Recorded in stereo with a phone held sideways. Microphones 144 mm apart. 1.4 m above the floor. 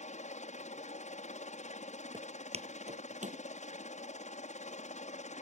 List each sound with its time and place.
0.0 s a helicopter: 55° left (ahead or behind)
2.1 s footsteps: 35° right (ahead or behind); by 3.4 s 60° right (ahead or behind)